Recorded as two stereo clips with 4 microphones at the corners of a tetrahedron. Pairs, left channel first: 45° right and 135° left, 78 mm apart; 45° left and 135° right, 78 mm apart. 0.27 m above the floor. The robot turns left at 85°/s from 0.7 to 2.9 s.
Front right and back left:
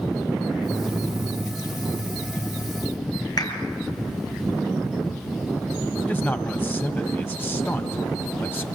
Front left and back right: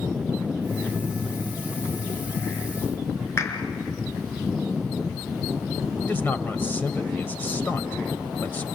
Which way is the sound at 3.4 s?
10° right.